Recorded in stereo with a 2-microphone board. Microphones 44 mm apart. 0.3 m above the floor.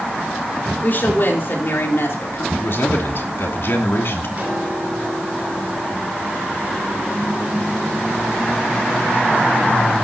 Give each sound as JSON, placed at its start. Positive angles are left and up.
{"t": 0.8, "sound": "a woman speaking", "side_deg": 45, "distance_m": 4.5}
{"t": 2.5, "sound": "a man speaking", "side_deg": 60, "distance_m": 3.0}
{"t": 4.4, "sound": "a piano", "side_deg": -35, "distance_m": 8.0}